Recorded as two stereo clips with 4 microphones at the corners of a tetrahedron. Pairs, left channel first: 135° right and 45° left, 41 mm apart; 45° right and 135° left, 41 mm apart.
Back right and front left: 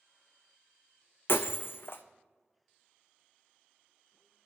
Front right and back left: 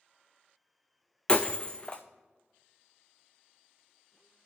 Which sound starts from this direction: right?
Breaking glass, at 1.3 s.